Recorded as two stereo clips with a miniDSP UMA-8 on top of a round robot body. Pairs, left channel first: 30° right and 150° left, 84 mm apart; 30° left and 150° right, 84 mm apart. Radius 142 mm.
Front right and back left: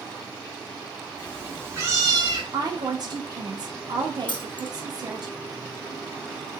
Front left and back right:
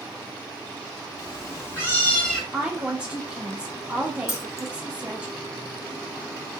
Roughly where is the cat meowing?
Left.